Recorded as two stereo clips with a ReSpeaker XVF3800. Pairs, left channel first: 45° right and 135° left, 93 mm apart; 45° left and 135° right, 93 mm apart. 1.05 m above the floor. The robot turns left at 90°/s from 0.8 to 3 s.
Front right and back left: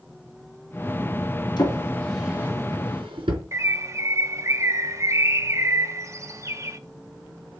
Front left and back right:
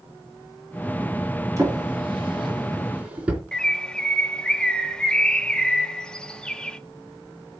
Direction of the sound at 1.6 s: 80° right.